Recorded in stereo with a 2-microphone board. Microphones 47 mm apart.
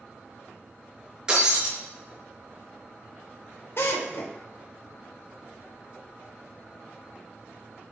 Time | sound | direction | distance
1.3 | breaking glass | 15° right (ahead or behind) | 4.5 m
3.8 | a drill | 55° left (ahead or behind) | 2.5 m